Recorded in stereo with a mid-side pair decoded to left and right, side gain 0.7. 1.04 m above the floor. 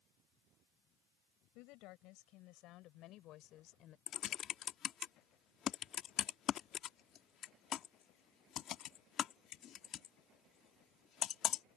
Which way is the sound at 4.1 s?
40° left.